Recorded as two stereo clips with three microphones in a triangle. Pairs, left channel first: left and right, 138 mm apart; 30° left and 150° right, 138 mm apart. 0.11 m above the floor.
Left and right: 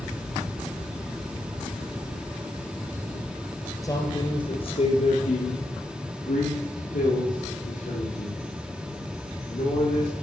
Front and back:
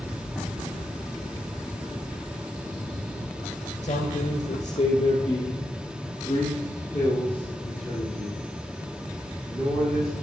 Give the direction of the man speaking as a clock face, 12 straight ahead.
11 o'clock.